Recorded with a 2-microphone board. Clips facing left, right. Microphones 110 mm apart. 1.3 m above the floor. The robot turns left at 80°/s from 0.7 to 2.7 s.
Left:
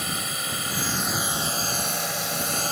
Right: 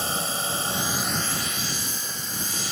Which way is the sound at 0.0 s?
30° right (ahead or behind).